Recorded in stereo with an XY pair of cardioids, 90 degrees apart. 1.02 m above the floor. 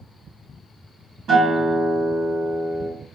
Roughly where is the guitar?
Right.